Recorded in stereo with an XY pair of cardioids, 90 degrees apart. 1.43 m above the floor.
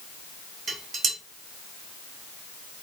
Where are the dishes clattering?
65° right, 1.4 m.